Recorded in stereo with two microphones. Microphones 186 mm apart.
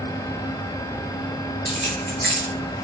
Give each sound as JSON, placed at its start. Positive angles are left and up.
{"t": 1.6, "sound": "keys jangling", "side_deg": 65, "distance_m": 1.7}